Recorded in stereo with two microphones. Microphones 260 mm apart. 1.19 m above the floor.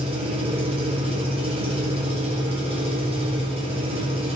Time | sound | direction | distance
0.0 | an engine running | 20° right (ahead or behind) | 3.5 m